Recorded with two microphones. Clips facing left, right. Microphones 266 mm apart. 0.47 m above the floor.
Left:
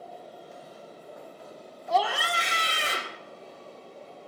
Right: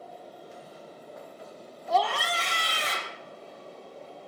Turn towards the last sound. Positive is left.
turn(degrees=40)  # may be behind; listen again after turning